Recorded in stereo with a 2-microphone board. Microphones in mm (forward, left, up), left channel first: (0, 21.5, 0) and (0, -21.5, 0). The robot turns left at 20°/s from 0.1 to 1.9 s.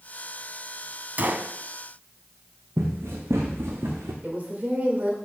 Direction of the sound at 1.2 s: 40° right (ahead or behind).